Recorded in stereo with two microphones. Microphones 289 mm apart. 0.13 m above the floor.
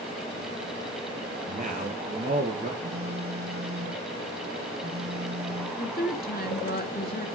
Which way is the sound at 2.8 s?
55° right (ahead or behind).